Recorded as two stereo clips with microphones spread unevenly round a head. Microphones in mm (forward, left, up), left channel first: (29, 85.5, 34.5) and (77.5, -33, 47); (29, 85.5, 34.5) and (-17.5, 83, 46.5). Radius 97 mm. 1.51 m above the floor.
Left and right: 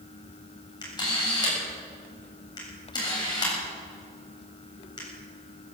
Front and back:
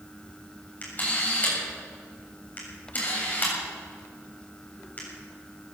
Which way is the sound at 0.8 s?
55° left.